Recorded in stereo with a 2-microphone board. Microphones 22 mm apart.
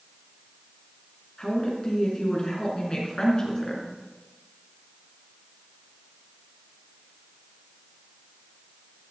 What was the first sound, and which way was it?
A woman speaking, 30° left (ahead or behind).